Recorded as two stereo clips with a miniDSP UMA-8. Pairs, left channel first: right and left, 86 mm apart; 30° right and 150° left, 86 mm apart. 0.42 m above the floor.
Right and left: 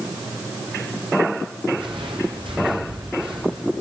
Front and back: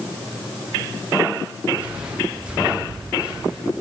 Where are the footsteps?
75° left, 4 m; by 3.6 s 70° left, 5 m.